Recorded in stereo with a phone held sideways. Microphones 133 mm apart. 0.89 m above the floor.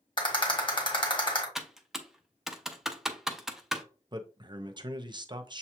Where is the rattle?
40° left (ahead or behind), 1.6 m.